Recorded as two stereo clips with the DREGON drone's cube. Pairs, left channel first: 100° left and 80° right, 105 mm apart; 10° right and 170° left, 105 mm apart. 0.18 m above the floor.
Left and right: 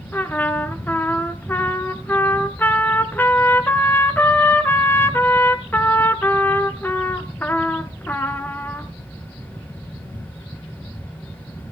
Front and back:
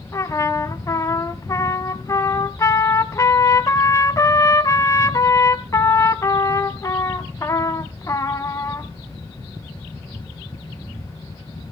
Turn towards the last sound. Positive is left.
turn(degrees=35)